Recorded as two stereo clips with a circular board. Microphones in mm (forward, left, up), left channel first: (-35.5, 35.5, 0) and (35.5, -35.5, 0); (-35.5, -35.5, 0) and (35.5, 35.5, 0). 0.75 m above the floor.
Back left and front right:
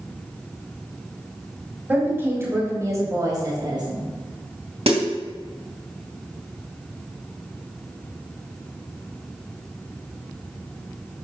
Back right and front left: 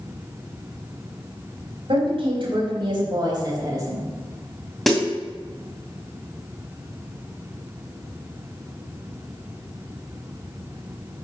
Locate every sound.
1.9 s a woman speaking: 25° left, 4 m; by 4.1 s 10° right, 3.5 m
4.9 s a snare drum: 45° right, 2 m